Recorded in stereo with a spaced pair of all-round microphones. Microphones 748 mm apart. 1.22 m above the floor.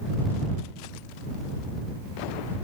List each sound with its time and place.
Only background noise.